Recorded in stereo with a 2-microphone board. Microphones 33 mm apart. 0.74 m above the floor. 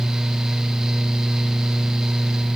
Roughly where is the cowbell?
I don't hear a cowbell.